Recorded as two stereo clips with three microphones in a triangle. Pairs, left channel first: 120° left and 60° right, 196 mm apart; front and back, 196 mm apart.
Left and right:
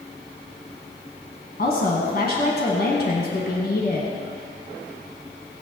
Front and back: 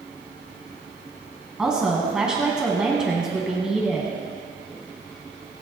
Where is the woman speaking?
95° left, 1.9 m.